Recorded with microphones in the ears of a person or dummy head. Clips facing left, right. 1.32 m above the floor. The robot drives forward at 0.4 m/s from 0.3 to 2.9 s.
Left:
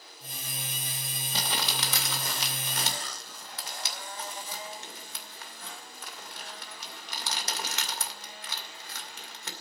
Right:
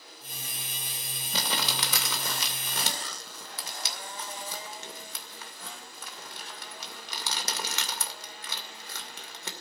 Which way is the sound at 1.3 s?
65° right (ahead or behind).